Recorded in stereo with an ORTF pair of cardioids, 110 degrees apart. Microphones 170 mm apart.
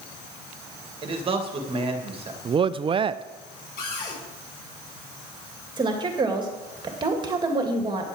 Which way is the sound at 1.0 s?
30° right.